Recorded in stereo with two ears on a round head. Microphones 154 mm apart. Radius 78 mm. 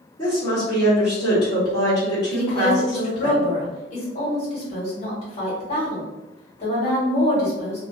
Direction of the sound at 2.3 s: 40° left (ahead or behind).